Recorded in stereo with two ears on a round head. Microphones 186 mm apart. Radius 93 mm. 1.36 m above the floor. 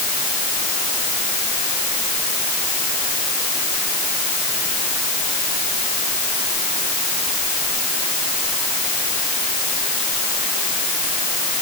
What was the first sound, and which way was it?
Only background noise.